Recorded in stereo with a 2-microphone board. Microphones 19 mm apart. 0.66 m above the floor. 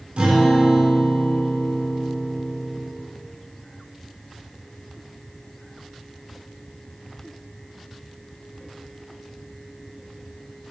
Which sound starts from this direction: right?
A guitar, at 0.2 s.